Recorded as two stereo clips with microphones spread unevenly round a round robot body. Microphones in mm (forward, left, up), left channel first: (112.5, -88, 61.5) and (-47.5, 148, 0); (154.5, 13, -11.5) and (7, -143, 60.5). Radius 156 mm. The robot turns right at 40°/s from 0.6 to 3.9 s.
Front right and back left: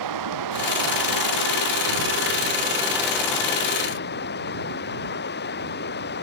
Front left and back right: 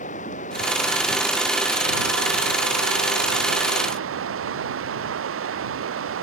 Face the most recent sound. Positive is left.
turn(degrees=-115)